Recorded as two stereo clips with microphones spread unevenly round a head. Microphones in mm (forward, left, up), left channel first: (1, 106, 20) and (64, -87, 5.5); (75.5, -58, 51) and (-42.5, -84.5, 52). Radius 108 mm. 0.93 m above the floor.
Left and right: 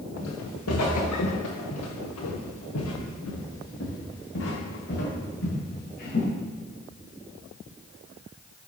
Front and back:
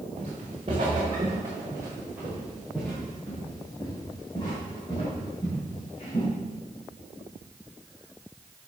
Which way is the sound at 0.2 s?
135° left.